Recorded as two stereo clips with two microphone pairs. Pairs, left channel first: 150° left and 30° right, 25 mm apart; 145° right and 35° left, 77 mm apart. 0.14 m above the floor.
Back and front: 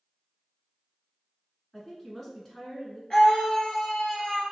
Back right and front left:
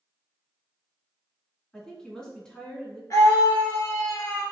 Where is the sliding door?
I don't hear a sliding door.